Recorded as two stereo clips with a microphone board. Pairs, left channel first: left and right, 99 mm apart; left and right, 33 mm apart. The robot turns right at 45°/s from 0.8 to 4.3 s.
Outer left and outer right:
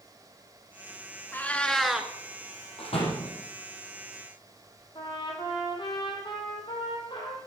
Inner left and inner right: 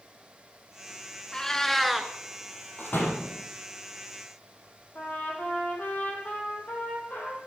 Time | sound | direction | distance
1.3 | a cat meowing | 155° left | 1.2 m
2.8 | a door slam | 70° left (ahead or behind) | 5 m
5.0 | a trumpet | 50° left (ahead or behind) | 3.5 m